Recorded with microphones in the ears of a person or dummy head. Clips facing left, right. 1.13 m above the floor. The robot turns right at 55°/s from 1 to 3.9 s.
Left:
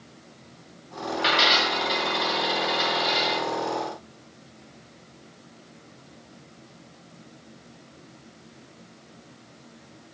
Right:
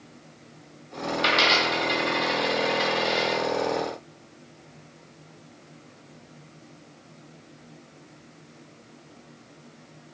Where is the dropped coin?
55° right (ahead or behind), 1.6 m; by 3.4 s 45° left (ahead or behind), 1.6 m.